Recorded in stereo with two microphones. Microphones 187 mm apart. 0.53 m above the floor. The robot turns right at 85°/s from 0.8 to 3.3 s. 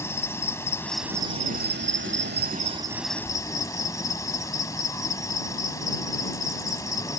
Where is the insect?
165° left; by 7.2 s 20° left.